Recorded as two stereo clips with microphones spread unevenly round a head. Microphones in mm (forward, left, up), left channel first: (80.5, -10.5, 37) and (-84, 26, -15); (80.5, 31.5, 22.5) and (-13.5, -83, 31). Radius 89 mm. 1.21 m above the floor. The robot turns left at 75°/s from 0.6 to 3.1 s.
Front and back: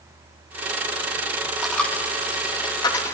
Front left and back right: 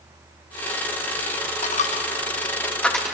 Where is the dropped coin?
60° left, 0.6 m; by 3.1 s 50° right, 0.6 m.